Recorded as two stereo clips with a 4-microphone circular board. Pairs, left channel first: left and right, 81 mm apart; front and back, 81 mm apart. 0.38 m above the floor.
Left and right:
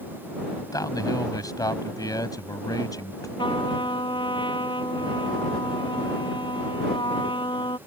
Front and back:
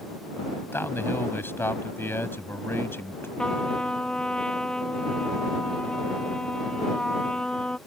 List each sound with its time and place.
0.7 s a man speaking: 60° left
3.4 s a trumpet: 80° left